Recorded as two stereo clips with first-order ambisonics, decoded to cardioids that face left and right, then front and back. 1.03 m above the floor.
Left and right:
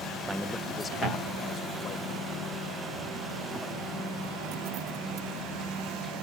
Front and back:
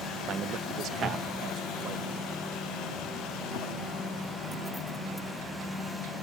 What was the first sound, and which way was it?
A man speaking, 165° right.